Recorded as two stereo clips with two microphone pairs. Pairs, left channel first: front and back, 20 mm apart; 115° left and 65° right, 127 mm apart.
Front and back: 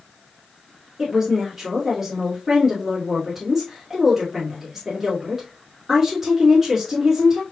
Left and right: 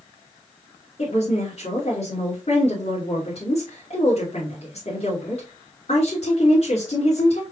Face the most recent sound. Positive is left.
turn(degrees=100)